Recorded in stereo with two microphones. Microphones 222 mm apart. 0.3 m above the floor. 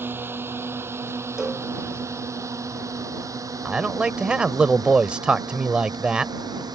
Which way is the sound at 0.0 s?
10° right (ahead or behind).